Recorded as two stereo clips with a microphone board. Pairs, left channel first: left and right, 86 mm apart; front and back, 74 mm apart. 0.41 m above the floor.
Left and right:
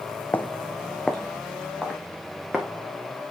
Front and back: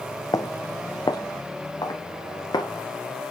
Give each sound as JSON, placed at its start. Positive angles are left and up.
{"t": 0.3, "sound": "footsteps", "azimuth_deg": 25, "distance_m": 0.9}